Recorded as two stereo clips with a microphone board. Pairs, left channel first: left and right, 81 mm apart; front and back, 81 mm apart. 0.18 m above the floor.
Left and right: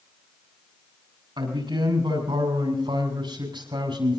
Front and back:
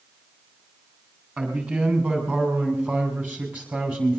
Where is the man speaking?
110° right, 8 m.